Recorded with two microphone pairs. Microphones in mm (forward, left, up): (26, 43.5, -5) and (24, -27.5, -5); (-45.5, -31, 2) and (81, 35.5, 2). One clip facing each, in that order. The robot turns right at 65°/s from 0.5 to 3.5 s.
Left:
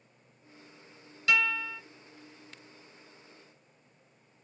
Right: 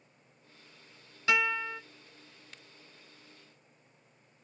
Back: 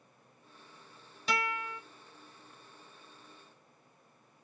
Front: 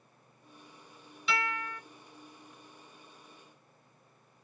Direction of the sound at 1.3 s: 140° right.